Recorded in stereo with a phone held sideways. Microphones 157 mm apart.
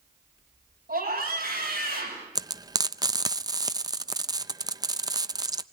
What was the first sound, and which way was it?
A scream, 80° right.